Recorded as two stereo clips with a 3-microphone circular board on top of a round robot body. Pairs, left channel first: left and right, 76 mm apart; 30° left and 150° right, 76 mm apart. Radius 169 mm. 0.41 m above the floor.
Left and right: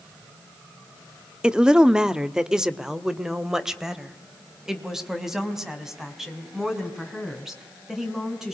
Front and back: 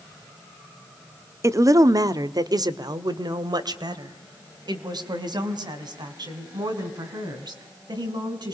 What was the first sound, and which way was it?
A woman speaking, 165° right.